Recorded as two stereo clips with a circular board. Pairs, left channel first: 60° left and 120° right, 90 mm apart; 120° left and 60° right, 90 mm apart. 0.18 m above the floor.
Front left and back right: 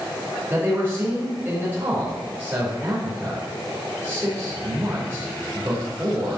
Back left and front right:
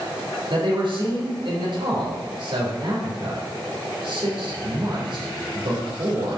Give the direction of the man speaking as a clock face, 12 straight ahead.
2 o'clock.